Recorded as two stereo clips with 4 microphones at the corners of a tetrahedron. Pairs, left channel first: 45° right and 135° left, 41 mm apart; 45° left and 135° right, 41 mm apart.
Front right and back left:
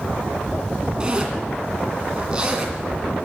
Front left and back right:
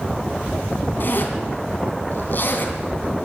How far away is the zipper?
About 2.5 m.